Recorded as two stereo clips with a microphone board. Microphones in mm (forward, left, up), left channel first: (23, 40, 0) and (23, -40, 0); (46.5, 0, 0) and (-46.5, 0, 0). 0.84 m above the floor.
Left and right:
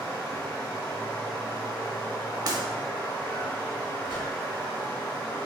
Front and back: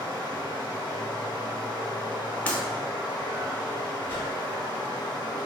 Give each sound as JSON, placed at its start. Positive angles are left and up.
{"t": 0.0, "sound": "running water", "azimuth_deg": 25, "distance_m": 1.5}
{"t": 2.5, "sound": "breaking glass", "azimuth_deg": -70, "distance_m": 0.8}
{"t": 4.1, "sound": "a whoosh", "azimuth_deg": -65, "distance_m": 1.3}